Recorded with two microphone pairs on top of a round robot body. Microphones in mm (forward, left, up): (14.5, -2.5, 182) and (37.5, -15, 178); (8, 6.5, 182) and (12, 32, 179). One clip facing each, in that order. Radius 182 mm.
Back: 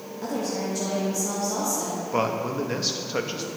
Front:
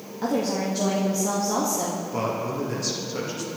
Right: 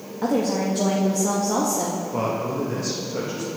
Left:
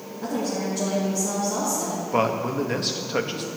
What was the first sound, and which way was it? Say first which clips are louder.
A woman speaking: front 4 dB, right 5 dB; 95° right.